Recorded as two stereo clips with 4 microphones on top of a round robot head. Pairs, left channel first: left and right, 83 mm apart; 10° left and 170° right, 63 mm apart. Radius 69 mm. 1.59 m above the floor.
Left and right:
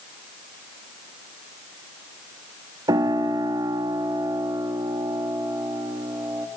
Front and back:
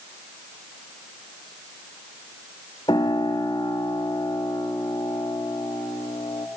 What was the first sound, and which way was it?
A piano, 45° right.